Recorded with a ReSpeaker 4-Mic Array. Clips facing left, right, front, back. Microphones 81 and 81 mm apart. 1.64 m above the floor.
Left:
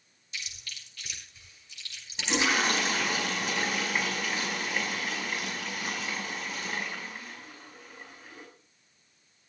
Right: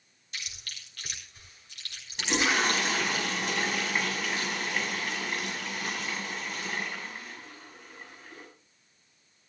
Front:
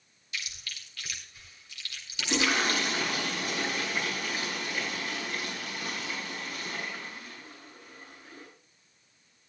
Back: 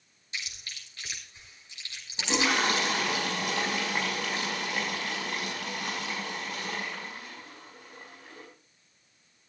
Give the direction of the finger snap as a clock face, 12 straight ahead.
No finger snap in this recording.